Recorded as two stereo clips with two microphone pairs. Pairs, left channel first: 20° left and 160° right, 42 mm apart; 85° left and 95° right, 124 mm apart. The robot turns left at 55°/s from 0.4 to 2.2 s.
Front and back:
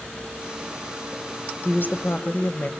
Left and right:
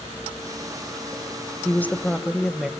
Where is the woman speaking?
20° left, 1.5 m; by 2.7 s 10° right, 1.5 m.